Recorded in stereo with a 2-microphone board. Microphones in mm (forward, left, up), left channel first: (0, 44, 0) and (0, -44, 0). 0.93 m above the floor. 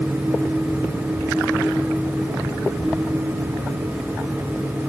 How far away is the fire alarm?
I don't hear a fire alarm.